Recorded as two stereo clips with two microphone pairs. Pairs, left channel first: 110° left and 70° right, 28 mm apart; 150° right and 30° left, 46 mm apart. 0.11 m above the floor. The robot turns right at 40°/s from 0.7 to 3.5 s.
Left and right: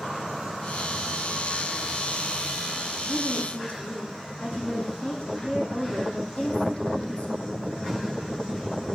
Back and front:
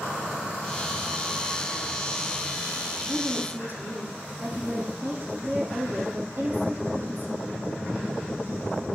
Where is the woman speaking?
55° left, 4.5 m; by 7.5 s 70° left, 4.5 m.